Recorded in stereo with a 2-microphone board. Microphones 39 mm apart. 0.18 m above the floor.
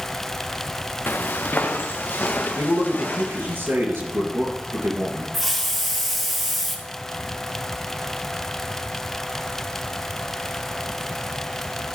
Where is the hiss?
Centre (ahead or behind), 1.6 m.